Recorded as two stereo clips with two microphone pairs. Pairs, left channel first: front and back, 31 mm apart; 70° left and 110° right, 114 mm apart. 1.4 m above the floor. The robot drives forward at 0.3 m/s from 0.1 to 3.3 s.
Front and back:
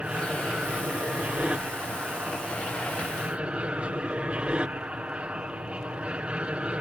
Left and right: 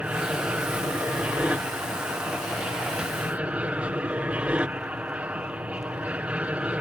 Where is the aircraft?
Straight behind.